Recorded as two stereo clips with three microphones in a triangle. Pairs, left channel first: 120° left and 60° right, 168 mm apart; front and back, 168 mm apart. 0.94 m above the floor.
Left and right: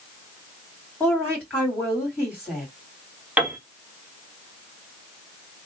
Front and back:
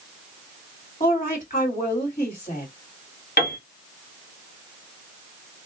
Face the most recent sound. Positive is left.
turn(degrees=20)